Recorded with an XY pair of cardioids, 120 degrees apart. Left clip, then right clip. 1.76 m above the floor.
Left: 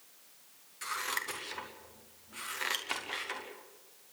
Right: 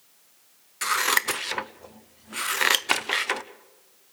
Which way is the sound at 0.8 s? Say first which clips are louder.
Right 13 dB; 65° right.